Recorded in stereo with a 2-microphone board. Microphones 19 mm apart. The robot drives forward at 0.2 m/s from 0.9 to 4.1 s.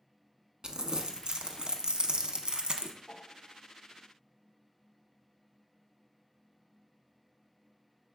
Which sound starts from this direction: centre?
A piano, at 3.1 s.